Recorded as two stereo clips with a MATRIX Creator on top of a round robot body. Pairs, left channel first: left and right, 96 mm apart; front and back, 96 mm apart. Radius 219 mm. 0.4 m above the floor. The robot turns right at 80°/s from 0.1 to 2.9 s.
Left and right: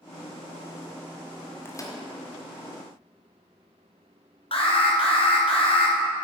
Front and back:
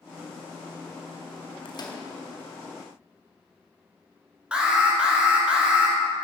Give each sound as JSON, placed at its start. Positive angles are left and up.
{"t": 1.6, "sound": "a microwave", "azimuth_deg": 25, "distance_m": 1.6}
{"t": 4.5, "sound": "an alarm", "azimuth_deg": 100, "distance_m": 2.5}